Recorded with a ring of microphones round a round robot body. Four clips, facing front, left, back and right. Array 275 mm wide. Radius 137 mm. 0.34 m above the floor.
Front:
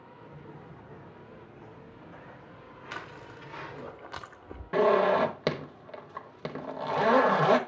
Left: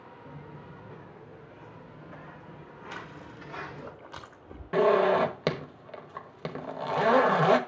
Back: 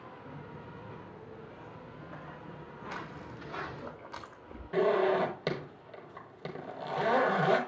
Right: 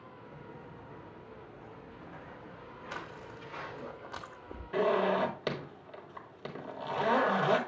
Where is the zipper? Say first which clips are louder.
Left 6 dB, front 4 dB; 55° left, 1.4 m.